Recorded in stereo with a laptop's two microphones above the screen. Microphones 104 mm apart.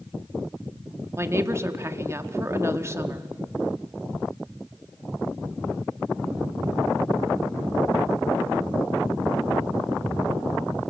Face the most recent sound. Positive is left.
turn(degrees=-30)  # may be behind; listen again after turning